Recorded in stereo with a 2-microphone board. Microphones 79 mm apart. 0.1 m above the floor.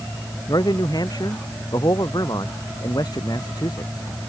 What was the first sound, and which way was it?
A man speaking, 55° left (ahead or behind).